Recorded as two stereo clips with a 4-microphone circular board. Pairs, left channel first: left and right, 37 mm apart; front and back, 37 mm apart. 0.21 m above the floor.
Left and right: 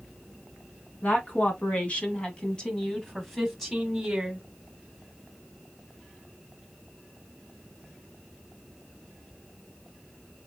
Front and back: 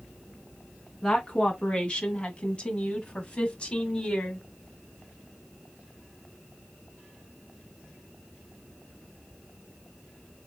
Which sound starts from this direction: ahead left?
A woman speaking, at 1.0 s.